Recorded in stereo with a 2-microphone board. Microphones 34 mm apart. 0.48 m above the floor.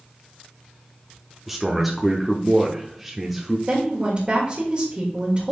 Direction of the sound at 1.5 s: Centre (ahead or behind).